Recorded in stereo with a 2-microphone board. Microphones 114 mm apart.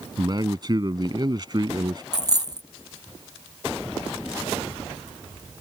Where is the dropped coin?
35° right (ahead or behind).